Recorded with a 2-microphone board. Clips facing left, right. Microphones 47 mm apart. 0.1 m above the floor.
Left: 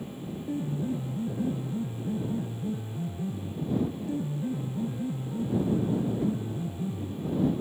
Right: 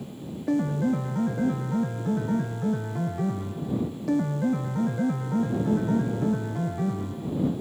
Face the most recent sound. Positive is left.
turn(degrees=-70)  # may be behind; listen again after turning